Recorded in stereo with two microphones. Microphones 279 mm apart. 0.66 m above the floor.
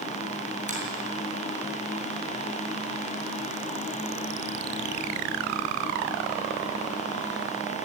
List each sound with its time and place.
0.7 s a finger snap: 25° right (ahead or behind), 8.5 m